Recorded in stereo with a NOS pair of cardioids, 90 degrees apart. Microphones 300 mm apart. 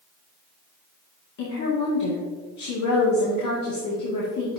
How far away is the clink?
No clink in this recording.